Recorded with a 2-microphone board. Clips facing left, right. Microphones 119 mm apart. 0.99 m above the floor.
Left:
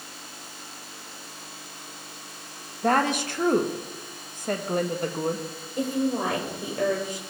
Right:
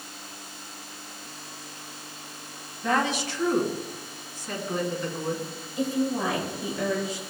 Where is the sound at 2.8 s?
55° left (ahead or behind), 1.4 m.